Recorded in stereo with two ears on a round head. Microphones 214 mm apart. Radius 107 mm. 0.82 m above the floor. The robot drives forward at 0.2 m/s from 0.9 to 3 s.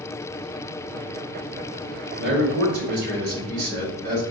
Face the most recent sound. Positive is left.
turn(degrees=-45)  # may be behind; listen again after turning